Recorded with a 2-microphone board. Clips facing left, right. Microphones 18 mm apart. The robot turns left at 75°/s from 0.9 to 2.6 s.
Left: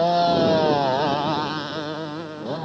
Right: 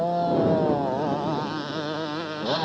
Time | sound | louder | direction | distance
0.0 | a motorcycle | left 4 dB | 70° left | ?